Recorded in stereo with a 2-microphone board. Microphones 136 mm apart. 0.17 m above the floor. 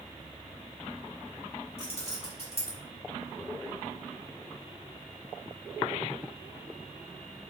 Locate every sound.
1.8 s keys jangling: 45° left (ahead or behind), 1.8 m